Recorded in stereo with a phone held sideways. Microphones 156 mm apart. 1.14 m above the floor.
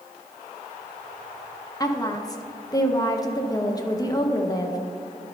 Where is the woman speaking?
25° left (ahead or behind), 0.8 m.